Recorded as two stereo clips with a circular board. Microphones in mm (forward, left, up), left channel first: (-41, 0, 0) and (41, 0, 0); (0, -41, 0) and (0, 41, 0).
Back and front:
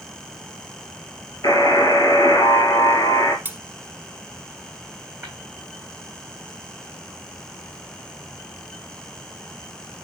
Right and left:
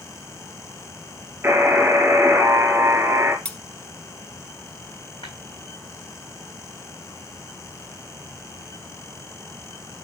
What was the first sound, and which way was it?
A buzzer, 150° left.